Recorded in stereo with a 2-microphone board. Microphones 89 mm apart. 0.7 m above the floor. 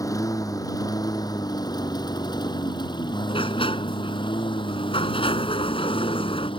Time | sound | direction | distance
0.0 | a lawn mower | 35° left (ahead or behind) | ?
3.3 | a sliding door | 80° left | ?